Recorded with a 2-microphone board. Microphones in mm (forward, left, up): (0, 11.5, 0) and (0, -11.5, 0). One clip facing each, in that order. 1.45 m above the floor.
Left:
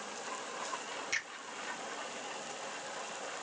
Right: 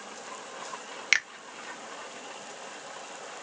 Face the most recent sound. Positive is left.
turn(degrees=-65)  # may be behind; listen again after turning